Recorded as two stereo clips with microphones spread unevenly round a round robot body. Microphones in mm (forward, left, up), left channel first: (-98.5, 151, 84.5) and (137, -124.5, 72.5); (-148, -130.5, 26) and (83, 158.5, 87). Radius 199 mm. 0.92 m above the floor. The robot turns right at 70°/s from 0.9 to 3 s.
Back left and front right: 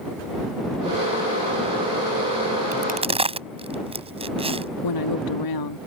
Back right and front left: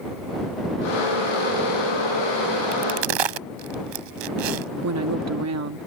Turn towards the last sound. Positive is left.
turn(degrees=105)